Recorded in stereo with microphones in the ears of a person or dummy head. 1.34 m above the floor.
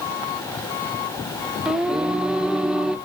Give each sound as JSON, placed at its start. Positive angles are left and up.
{"t": 1.6, "sound": "singing", "side_deg": 0, "distance_m": 0.5}